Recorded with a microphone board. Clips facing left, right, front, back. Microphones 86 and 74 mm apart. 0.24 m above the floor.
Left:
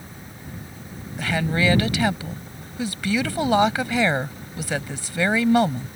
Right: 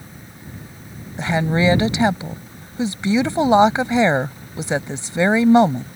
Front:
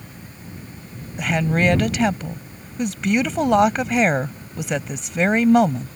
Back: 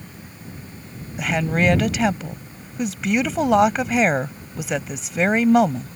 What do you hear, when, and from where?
1.2 s a woman speaking: 95° right